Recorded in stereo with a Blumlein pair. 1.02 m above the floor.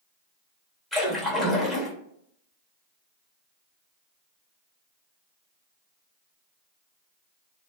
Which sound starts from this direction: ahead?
A splash, at 0.9 s.